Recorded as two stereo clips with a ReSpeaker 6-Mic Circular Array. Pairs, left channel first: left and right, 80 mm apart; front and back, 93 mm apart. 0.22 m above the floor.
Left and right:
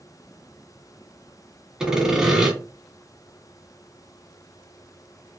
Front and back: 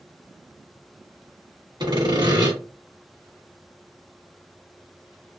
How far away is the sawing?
About 1.2 m.